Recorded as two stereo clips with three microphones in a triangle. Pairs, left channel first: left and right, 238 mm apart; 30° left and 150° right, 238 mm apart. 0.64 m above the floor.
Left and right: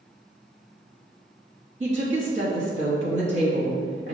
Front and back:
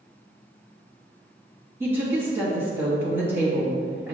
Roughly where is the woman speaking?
Right.